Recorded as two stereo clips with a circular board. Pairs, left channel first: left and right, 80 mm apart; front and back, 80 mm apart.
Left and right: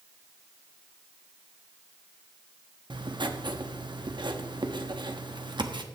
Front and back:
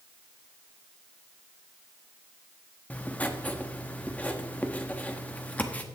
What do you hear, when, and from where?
2.9 s writing: 70° right, 1.0 m